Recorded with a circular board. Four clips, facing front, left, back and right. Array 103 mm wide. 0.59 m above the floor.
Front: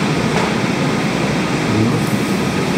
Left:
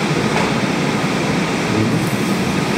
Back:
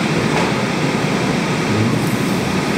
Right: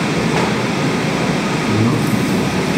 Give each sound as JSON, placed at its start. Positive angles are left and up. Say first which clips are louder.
{"t": 1.7, "sound": "a man speaking", "louder": "right 2 dB, front 2 dB", "azimuth_deg": -100, "distance_m": 4.0}